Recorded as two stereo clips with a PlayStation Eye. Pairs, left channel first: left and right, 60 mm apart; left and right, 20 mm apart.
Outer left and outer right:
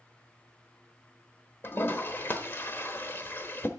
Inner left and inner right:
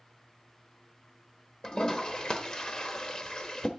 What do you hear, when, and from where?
1.6 s a toilet flushing: 35° left (ahead or behind), 1.0 m